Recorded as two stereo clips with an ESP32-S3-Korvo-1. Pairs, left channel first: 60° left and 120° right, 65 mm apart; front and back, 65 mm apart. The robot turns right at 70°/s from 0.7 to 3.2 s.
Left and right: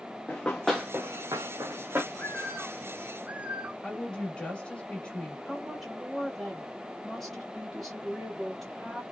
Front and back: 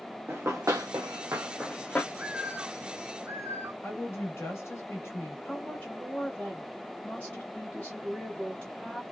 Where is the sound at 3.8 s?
5° right, 1.4 m.